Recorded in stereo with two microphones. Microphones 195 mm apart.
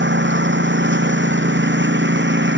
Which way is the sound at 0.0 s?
70° right (ahead or behind).